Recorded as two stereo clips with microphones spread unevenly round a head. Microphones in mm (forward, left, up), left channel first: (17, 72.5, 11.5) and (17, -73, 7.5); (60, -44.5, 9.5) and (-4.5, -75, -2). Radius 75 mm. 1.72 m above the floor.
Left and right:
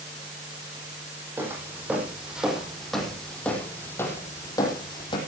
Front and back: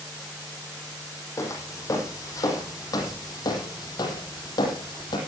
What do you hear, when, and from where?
1.4 s footsteps: 15° right, 5.5 m; by 5.2 s 35° left, 5 m